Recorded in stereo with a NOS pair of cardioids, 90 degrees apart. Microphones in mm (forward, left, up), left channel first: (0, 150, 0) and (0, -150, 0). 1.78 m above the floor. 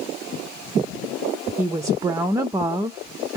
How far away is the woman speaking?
About 0.5 m.